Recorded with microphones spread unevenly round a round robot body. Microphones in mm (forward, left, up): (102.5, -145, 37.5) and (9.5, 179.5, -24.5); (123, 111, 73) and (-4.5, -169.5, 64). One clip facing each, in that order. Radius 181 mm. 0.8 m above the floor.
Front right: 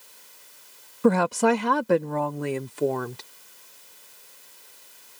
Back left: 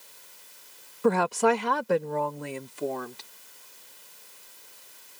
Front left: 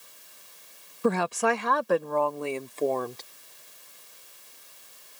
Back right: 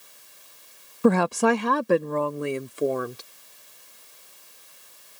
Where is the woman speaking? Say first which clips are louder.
Front right 3 dB, back right 6 dB; 95° right; by 3.2 s 35° right.